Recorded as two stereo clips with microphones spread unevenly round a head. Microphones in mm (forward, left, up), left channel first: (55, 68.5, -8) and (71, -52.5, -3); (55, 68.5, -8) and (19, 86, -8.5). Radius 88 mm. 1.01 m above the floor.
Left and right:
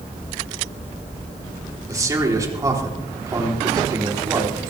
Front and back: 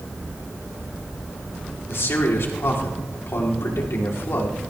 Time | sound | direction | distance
1.9 | a man speaking | 20° right | 3.5 m